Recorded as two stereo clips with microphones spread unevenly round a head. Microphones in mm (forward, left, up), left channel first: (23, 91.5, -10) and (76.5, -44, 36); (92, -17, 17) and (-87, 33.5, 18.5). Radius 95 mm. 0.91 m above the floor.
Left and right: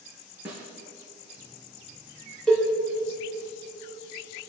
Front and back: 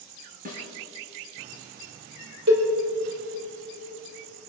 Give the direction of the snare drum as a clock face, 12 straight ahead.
5 o'clock.